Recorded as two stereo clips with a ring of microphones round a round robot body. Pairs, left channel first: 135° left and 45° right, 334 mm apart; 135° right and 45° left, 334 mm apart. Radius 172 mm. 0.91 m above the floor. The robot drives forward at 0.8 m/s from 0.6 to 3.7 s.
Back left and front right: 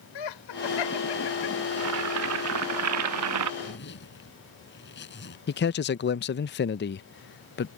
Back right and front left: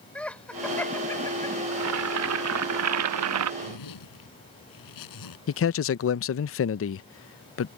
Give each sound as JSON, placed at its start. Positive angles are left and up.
{"t": 0.1, "sound": "laughter", "azimuth_deg": 140}
{"t": 1.7, "sound": "boiling", "azimuth_deg": 0}
{"t": 3.6, "sound": "a zipper", "azimuth_deg": -165}
{"t": 5.5, "sound": "a man speaking", "azimuth_deg": -175}